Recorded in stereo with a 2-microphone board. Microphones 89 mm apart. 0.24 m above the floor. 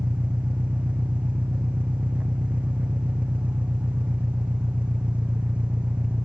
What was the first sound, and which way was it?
An engine running, 15° right (ahead or behind).